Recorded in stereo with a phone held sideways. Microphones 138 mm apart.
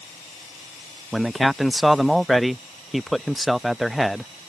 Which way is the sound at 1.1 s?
Centre (ahead or behind).